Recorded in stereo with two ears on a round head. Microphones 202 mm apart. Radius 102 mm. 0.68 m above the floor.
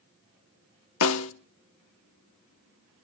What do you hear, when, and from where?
1.0 s a snare drum: 65° left (ahead or behind), 1.0 m